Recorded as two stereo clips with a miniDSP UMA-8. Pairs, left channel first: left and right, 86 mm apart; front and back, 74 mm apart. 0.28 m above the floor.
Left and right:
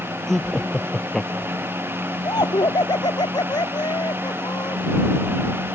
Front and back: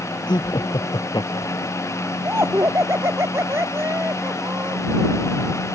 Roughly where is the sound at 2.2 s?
Behind left.